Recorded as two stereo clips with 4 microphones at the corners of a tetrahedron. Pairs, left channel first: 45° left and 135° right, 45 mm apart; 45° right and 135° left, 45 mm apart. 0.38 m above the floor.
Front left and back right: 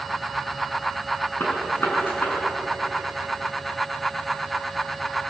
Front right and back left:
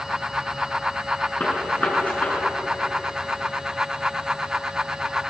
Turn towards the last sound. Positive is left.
turn(degrees=10)